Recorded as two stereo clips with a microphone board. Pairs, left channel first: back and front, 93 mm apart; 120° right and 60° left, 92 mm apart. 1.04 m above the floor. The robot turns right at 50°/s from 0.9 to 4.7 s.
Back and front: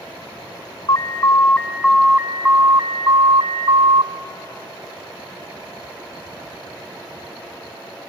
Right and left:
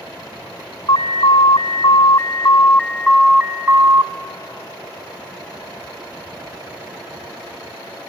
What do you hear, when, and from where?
0.9 s an alarm: 155° right, 2.5 m; by 4.1 s 5° left, 2.5 m